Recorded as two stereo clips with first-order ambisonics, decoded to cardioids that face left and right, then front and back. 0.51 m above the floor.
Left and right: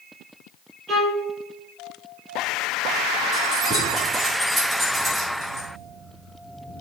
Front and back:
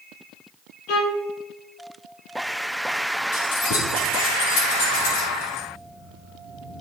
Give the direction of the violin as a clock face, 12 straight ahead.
1 o'clock.